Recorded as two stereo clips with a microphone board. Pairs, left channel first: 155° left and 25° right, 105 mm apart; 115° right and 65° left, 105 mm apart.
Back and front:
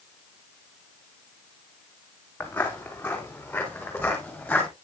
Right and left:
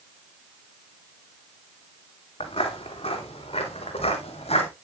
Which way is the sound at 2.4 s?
130° right.